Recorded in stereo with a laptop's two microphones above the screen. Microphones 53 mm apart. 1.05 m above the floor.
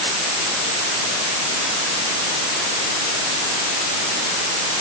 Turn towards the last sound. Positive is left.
No sound to turn to.